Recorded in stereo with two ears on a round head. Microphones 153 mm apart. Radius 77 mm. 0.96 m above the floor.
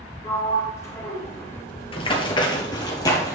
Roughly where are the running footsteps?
Left.